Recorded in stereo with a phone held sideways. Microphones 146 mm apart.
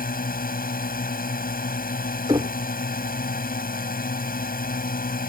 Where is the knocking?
30° right (ahead or behind).